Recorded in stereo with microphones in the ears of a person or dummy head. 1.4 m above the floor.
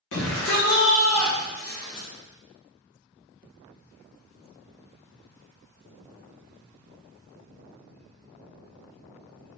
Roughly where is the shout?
Left.